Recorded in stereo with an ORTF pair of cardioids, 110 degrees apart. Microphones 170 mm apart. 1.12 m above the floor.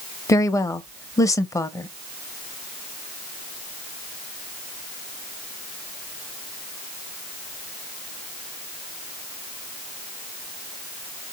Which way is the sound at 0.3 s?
20° left.